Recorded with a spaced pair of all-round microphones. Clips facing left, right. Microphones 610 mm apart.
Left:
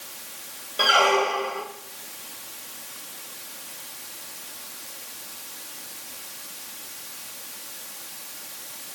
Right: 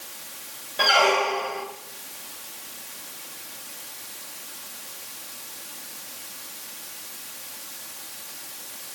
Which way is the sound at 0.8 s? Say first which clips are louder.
Left 1 dB; 20° right (ahead or behind).